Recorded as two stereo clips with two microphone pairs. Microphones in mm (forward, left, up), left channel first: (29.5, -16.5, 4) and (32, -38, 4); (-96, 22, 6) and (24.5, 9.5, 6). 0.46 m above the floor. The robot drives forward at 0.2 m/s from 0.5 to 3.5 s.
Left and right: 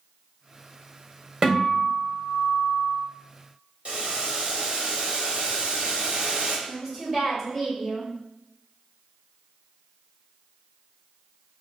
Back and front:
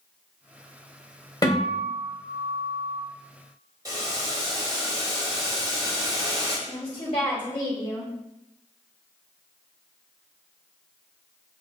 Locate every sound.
1.4 s a guitar: 135° right, 1.6 m; by 3.0 s 145° right, 1.8 m
3.9 s boiling: 70° right, 1.4 m
6.7 s a woman speaking: 170° right, 1.9 m